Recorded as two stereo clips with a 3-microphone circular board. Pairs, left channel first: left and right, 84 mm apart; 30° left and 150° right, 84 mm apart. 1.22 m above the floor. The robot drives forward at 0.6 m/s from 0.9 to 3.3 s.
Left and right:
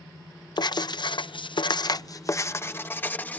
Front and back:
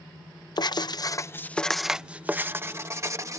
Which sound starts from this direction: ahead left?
Writing, at 0.6 s.